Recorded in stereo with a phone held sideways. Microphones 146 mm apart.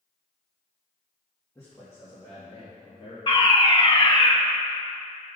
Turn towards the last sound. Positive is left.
turn(degrees=35)  # may be behind; listen again after turning